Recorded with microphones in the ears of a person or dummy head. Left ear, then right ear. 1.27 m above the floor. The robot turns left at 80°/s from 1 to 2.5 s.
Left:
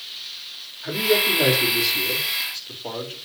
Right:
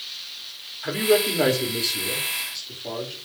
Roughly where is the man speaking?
Right.